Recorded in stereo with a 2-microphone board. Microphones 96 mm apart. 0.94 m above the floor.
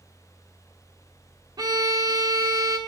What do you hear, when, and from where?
1.6 s a violin: 40° right (ahead or behind), 0.9 m